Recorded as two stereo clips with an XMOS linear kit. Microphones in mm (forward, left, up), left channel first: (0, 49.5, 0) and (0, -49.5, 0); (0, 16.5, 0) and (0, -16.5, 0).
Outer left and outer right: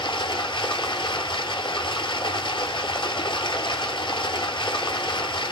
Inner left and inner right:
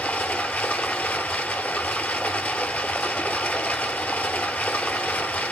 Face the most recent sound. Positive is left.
turn(degrees=55)  # may be behind; listen again after turning